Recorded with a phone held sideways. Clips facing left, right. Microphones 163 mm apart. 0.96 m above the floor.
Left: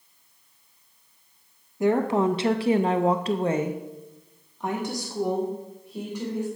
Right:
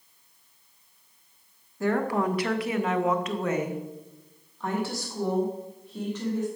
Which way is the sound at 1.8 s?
15° left (ahead or behind).